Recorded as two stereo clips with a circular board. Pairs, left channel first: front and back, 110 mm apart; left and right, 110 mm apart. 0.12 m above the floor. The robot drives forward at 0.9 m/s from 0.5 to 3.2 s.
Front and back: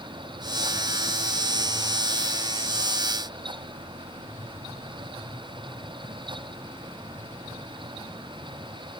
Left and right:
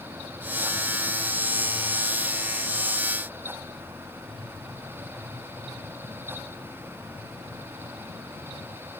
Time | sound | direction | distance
4.2 | tapping | 80° left | 6.5 m